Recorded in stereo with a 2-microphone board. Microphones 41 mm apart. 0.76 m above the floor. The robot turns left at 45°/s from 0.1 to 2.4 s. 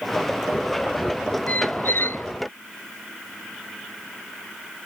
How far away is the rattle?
I don't hear a rattle.